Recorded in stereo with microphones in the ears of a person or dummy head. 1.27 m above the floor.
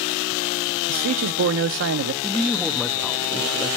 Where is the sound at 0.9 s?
70° right (ahead or behind), 0.5 m.